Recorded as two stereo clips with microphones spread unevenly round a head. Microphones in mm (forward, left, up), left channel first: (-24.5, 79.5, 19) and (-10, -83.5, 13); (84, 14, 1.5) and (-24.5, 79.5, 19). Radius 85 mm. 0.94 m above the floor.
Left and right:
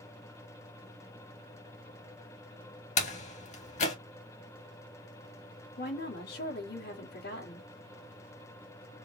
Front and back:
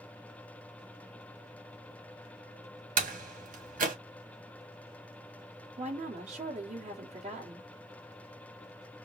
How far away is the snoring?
No snoring in this recording.